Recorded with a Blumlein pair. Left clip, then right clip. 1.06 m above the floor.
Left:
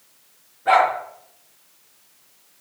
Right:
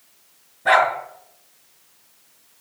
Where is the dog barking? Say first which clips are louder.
Even; 30° right, 5 m.